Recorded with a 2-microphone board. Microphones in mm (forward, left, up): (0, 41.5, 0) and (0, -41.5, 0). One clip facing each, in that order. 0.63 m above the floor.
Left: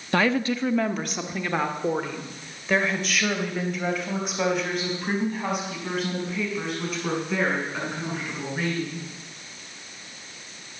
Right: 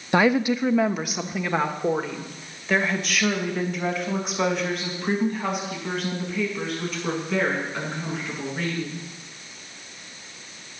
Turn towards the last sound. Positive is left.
turn(degrees=5)  # may be behind; listen again after turning